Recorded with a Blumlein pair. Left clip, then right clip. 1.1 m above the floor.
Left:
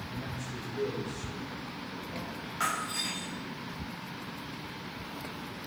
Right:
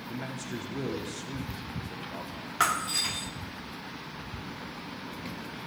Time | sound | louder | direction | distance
0.1 | a man speaking | right 5 dB | 60° right | 2 m
2.6 | breaking glass | right 5 dB | 65° right | 1.3 m